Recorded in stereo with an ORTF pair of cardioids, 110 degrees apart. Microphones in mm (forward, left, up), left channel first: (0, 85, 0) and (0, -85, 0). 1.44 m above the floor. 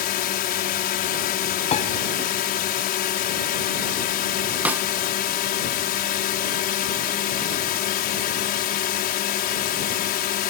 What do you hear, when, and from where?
0.0 s a drone: 65° left
1.7 s a piano: 40° left
4.7 s a snare drum: 10° right